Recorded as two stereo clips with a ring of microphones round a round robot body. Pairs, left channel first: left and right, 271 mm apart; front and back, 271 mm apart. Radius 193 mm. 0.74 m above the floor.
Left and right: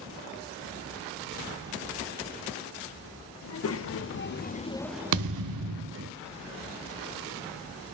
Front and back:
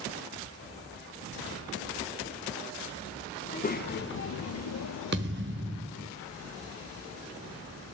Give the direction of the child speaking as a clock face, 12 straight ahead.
10 o'clock.